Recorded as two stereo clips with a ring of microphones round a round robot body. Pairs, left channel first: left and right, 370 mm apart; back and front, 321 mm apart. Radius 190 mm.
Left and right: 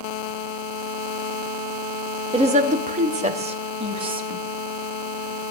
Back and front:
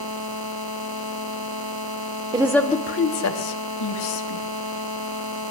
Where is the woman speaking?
40° right, 0.8 m; by 4.4 s 165° right, 2.5 m.